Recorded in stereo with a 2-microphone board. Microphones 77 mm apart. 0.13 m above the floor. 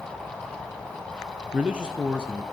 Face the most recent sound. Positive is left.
turn(degrees=-15)  # may be behind; listen again after turning